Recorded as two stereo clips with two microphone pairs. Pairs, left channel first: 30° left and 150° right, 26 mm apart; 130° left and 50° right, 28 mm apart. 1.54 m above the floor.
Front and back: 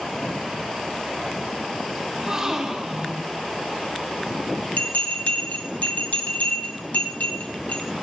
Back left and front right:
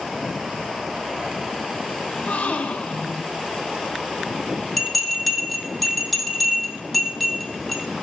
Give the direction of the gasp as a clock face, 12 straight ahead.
7 o'clock.